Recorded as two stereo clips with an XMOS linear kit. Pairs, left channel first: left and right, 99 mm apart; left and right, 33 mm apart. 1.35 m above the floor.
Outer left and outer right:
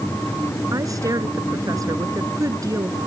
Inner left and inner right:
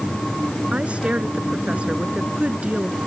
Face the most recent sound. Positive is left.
turn(degrees=-35)  # may be behind; listen again after turning